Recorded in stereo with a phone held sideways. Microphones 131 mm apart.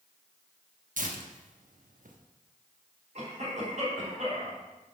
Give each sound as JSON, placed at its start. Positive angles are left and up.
{"t": 1.0, "sound": "tearing paper", "side_deg": -80, "distance_m": 1.0}
{"t": 3.1, "sound": "a cough", "side_deg": -60, "distance_m": 4.0}